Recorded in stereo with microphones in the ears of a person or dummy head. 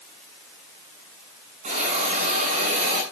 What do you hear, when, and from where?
1.6 s a hiss: 50° right (ahead or behind), 8.5 m